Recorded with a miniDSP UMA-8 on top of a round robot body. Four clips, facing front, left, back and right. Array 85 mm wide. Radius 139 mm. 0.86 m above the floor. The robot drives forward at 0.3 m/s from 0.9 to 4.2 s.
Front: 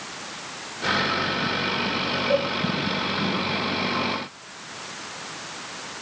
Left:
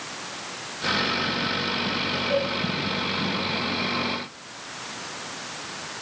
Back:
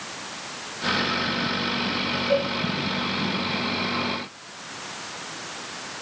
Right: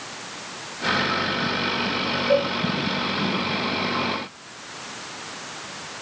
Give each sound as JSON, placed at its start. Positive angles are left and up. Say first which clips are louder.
{"t": 2.3, "sound": "a cowbell", "louder": "right 5 dB, even", "azimuth_deg": -80, "distance_m": 1.6}